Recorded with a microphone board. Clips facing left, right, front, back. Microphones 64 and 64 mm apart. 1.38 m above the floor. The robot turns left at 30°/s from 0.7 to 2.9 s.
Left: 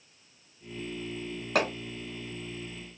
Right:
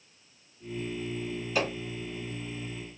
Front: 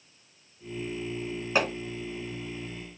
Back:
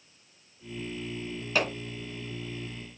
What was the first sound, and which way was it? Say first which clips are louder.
Hammering: left 2 dB, front 2 dB; 65° left.